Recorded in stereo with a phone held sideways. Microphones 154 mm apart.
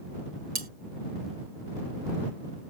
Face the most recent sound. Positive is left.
turn(degrees=-80)